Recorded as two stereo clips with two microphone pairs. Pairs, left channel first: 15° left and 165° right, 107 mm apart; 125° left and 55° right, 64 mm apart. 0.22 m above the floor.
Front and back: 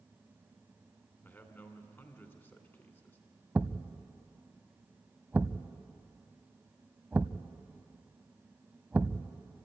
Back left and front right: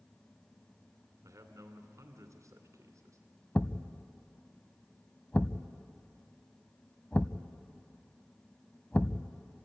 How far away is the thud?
About 0.6 m.